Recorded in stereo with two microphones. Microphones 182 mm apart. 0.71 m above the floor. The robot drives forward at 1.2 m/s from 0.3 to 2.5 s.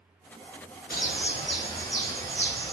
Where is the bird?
55° left (ahead or behind), 0.9 m; by 2.7 s 15° left (ahead or behind), 2.5 m.